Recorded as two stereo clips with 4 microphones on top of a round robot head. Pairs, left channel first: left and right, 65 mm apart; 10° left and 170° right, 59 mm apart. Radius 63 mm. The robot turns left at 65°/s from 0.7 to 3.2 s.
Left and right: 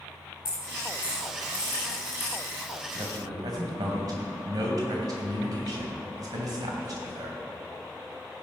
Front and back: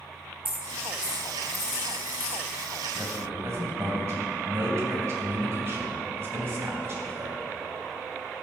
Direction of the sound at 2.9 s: 100° right.